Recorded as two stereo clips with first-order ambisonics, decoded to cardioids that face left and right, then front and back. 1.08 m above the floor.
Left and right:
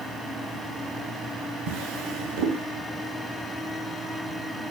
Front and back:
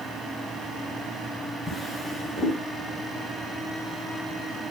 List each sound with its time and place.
1.7 s a drawer: 85° right, 3 m